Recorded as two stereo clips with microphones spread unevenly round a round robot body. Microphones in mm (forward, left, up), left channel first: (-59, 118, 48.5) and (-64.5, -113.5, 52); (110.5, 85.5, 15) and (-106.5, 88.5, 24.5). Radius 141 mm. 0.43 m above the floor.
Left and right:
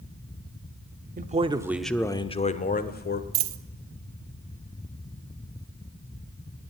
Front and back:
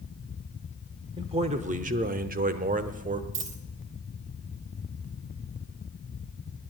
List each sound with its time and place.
1.2 s a man speaking: 120° right, 0.9 m; by 3.2 s 125° left, 1.5 m
3.3 s a dropped coin: 130° right, 0.6 m